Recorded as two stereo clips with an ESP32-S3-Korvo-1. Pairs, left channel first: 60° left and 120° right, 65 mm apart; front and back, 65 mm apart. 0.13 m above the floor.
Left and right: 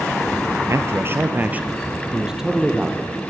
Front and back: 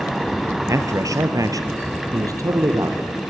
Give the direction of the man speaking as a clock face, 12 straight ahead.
5 o'clock.